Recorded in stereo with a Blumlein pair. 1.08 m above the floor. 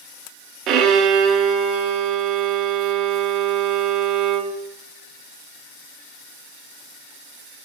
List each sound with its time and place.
0.7 s a violin: 35° right, 0.8 m